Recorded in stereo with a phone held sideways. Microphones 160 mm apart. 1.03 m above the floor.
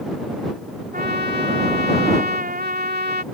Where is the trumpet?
70° right (ahead or behind).